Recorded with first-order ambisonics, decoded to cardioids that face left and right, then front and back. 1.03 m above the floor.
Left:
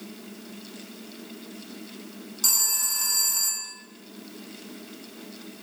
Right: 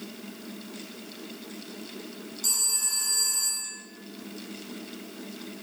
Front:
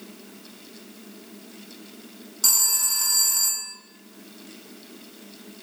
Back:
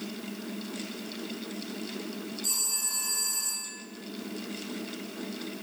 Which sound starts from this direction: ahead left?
A phone ringing, at 2.4 s.